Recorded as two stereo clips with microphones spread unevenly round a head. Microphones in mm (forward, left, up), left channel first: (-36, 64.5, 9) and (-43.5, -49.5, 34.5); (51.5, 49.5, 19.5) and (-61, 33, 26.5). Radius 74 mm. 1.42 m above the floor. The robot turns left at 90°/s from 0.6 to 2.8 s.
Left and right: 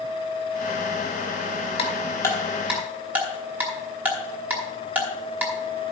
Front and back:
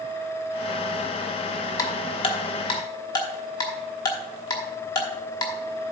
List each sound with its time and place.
1.8 s ticking: 50° left, 1.1 m; by 5.5 s 45° right, 1.1 m